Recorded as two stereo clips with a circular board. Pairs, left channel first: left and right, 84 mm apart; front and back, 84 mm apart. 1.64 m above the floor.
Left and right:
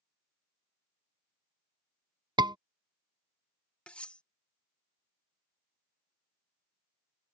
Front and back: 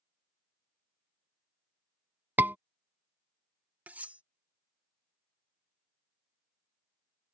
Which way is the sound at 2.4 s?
115° right.